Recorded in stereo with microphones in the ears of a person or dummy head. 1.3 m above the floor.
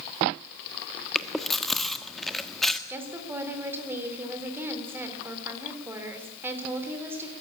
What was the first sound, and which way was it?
Chewing, centre (ahead or behind).